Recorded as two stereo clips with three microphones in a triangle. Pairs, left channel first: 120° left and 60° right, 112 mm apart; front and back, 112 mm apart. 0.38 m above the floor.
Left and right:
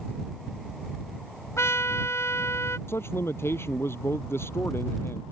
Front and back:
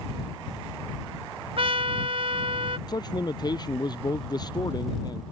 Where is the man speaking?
50° left.